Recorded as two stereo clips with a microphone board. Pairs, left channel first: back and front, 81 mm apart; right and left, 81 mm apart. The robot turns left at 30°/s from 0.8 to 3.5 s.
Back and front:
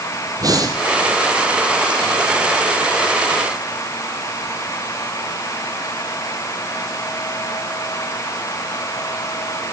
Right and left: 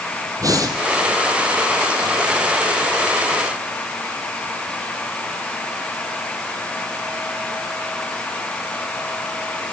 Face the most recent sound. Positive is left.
turn(degrees=-35)